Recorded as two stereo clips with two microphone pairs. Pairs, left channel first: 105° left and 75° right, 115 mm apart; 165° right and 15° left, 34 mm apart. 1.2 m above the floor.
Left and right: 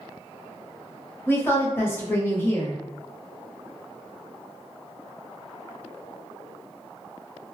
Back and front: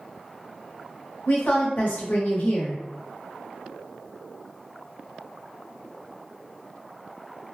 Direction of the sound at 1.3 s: 170° left.